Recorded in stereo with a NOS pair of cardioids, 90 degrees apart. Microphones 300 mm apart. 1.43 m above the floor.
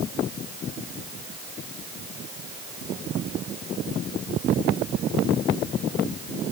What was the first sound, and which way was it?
Only background noise.